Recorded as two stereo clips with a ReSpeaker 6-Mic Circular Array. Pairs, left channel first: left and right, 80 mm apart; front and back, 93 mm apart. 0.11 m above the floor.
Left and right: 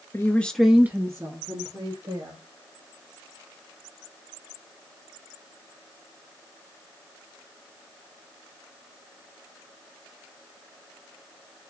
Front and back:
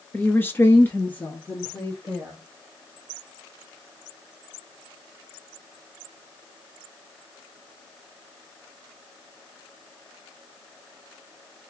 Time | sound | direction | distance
0.1 | a woman speaking | 60° left | 1.3 m